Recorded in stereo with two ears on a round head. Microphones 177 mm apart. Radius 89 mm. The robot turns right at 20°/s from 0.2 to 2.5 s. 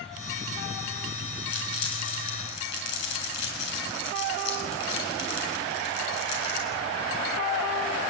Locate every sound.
1.5 s crumpling: 85° left, 8.5 m; by 6.7 s 70° left (ahead or behind), 8.5 m